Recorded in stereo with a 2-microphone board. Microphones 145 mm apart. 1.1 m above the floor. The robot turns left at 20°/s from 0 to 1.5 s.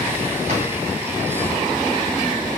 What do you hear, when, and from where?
0.5 s a drawer: 50° right (ahead or behind), 2.5 m; by 0.7 s 45° right (ahead or behind), 2.5 m